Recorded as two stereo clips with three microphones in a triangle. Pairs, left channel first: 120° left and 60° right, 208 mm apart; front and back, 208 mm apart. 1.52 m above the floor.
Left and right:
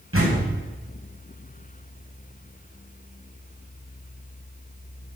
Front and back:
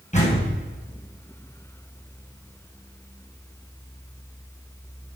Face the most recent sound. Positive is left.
turn(degrees=-55)